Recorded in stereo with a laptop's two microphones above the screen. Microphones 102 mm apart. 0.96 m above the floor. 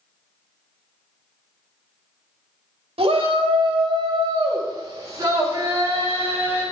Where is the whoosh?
I don't hear a whoosh.